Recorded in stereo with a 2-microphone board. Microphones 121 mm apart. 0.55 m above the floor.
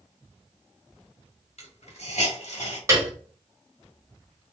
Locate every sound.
1.6 s a hiss: 65° left (ahead or behind), 1.4 m
2.9 s a piano: 25° right (ahead or behind), 1.4 m